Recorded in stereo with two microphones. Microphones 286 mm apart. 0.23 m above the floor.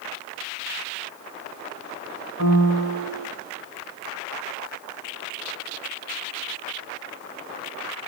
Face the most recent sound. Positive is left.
turn(degrees=45)  # may be behind; listen again after turning